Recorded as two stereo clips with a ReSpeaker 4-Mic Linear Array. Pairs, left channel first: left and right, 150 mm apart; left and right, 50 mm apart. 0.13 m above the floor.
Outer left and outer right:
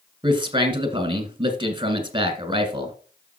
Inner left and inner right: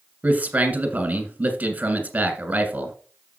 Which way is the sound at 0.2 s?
30° right (ahead or behind).